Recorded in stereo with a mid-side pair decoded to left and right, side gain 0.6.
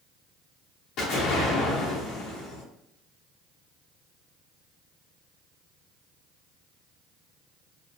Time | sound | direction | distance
1.0 | an explosion | 65° left | 1.2 m